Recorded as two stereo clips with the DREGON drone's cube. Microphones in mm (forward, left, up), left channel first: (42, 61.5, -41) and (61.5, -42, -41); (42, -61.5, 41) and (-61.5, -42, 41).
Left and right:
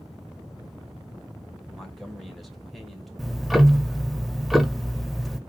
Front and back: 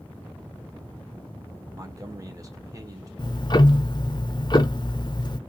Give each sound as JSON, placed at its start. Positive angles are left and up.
{"t": 1.8, "sound": "a man speaking", "azimuth_deg": -170, "distance_m": 0.9}
{"t": 3.2, "sound": "ticking", "azimuth_deg": 10, "distance_m": 0.5}